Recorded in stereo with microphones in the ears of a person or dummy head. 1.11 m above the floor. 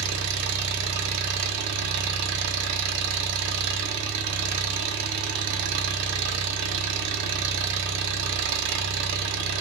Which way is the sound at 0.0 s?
70° right (ahead or behind).